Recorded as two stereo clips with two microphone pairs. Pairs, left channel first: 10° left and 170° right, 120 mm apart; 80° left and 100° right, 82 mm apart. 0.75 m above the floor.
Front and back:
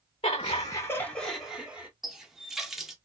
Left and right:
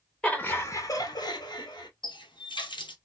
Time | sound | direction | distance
0.2 | laughter | straight ahead | 0.7 m
2.0 | a running tap | 105° left | 0.9 m